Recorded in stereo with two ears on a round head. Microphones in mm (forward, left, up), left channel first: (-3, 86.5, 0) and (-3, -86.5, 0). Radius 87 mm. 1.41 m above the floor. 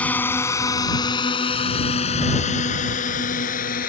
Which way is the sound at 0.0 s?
10° left (ahead or behind).